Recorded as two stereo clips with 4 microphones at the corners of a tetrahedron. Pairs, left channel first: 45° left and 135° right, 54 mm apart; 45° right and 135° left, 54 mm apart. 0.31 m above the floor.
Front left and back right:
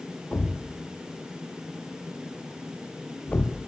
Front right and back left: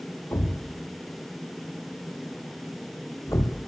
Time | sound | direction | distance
0.3 | a thud | 15° right | 3 m